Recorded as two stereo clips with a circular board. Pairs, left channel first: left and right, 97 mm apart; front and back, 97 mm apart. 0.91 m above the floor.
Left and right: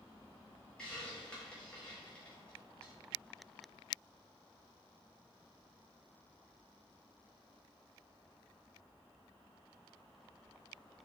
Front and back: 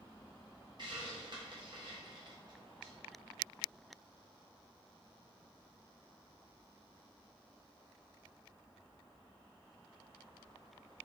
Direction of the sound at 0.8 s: 170° left.